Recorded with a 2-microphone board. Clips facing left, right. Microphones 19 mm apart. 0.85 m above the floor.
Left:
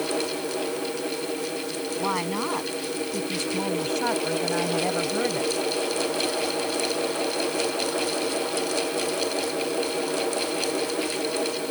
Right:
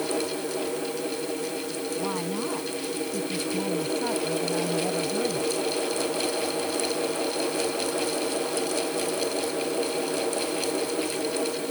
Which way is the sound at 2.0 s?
55° left (ahead or behind).